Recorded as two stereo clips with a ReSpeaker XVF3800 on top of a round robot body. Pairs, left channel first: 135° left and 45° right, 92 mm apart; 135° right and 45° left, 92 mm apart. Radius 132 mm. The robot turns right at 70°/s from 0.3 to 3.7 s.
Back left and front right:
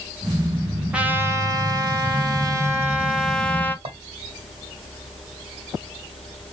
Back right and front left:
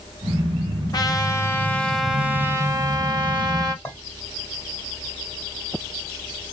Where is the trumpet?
120° right, 1.0 m; by 3.8 s 75° left, 1.0 m.